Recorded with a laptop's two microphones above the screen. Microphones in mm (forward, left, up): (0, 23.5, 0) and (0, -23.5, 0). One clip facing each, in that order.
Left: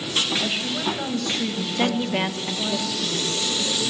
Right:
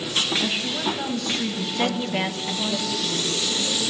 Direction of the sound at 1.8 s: 10° left (ahead or behind).